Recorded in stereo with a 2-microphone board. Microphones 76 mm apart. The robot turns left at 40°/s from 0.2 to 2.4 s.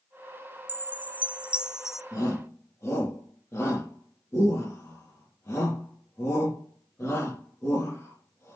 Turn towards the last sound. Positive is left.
turn(degrees=40)  # may be behind; listen again after turning